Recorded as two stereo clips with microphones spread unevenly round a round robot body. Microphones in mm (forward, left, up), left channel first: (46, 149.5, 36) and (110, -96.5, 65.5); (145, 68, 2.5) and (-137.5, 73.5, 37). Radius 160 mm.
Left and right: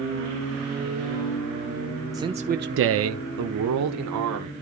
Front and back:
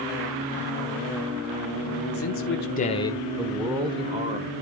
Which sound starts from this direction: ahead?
A man speaking, at 2.1 s.